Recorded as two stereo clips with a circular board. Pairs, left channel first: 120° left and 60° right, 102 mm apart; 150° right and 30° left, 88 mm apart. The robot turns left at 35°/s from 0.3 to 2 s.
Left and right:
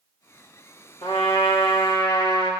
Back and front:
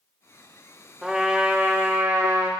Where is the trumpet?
115° left, 1.9 m; by 2.5 s 80° left, 1.9 m.